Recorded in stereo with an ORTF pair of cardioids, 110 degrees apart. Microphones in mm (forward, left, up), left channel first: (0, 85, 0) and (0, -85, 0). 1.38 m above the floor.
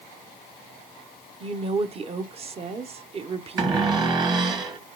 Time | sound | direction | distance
1.4 | a woman speaking | 35° right | 1.1 m
3.6 | a cupboard door | 25° right | 1.7 m